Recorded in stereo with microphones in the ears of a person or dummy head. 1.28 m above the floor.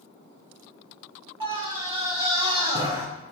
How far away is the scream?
About 1.1 m.